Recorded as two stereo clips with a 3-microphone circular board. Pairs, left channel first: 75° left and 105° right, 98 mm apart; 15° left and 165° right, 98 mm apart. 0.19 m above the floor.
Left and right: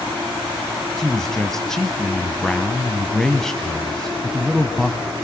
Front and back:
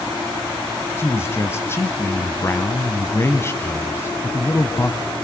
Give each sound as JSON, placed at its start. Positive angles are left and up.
{"t": 1.0, "sound": "a man speaking", "azimuth_deg": -5, "distance_m": 1.3}